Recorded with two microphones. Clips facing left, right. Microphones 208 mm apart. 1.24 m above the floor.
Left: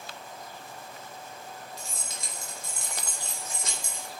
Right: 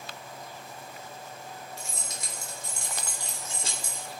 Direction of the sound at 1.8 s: 40° left (ahead or behind).